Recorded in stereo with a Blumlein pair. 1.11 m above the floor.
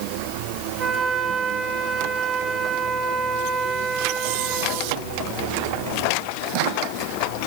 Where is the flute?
25° right, 8 m.